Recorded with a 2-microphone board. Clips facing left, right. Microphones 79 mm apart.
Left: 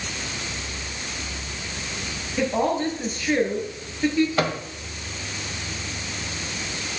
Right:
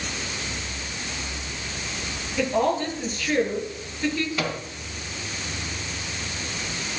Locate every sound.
2.4 s a woman speaking: 20° left (ahead or behind), 5.5 m
4.4 s a microwave: 50° left (ahead or behind), 1.7 m